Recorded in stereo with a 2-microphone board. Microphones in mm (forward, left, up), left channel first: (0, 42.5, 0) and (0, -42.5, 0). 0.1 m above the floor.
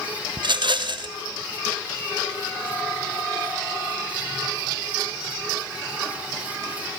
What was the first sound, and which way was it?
A rattle, 65° right (ahead or behind).